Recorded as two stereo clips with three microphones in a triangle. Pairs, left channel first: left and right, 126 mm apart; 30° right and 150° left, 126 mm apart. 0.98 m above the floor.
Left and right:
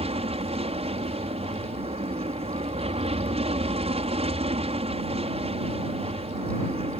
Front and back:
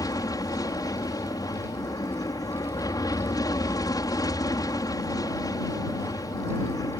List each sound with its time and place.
0.0 s an aircraft: 85° right